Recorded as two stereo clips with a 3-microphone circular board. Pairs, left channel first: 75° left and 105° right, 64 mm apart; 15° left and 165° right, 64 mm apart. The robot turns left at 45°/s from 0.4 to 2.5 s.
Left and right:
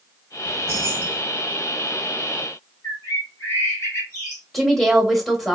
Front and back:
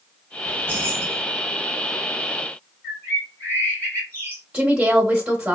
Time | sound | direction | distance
0.5 | keys jangling | 115° right | 0.8 m
2.8 | a bird | 65° left | 1.9 m
4.5 | a woman speaking | 160° left | 1.0 m